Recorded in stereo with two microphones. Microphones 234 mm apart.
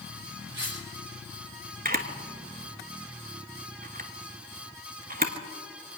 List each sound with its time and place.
0.5 s cutlery clinking: 55° right (ahead or behind), 6.5 m
1.9 s a camera shutter: 40° right (ahead or behind), 1.1 m